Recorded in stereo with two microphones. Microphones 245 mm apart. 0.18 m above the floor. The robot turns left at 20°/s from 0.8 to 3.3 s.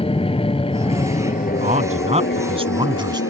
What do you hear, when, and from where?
0.0 s an aircraft: 20° left (ahead or behind); by 3.3 s 60° left (ahead or behind)
1.6 s a man speaking: 115° right; by 3.2 s 150° right